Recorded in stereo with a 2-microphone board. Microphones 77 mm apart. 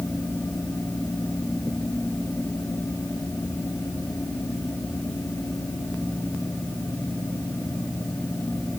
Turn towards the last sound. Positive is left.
No sound to turn to.